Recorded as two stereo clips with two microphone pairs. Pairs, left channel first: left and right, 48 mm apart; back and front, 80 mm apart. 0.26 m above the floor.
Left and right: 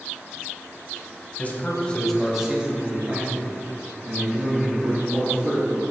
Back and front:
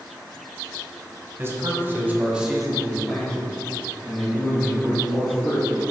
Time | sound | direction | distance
1.4 | a man speaking | 45° left | 1.6 m